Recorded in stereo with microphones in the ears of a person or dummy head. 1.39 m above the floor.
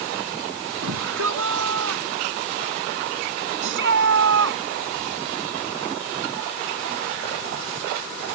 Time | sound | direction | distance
0.8 | a shout | 75° right (ahead or behind) | ?
3.6 | a shout | 70° right (ahead or behind) | ?